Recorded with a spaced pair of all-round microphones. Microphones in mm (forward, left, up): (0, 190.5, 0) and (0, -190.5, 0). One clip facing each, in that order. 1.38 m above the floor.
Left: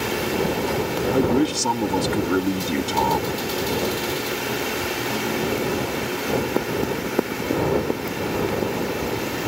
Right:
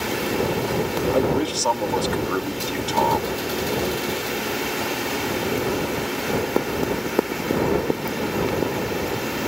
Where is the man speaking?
35° left (ahead or behind).